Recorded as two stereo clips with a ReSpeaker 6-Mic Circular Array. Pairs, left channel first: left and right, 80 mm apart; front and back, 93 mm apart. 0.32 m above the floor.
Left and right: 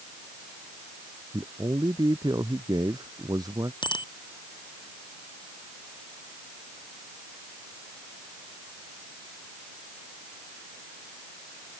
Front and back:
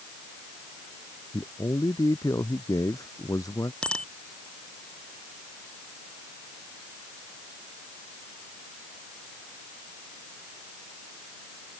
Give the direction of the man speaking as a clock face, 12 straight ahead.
2 o'clock.